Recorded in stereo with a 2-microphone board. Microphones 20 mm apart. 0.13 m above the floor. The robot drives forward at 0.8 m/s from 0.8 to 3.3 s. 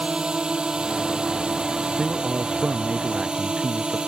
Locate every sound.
0.0 s a drone: 45° right (ahead or behind); by 4.1 s 50° right (ahead or behind)
2.0 s a man speaking: 70° right (ahead or behind); by 4.0 s 75° right (ahead or behind)